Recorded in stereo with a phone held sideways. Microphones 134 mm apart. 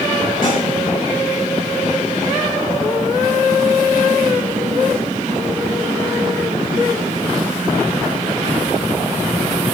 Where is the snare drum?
70° left (ahead or behind), 7 m.